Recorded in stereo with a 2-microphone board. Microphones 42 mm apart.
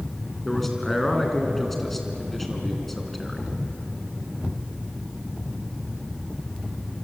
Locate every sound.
0.5 s a man speaking: 5° left (ahead or behind), 3 m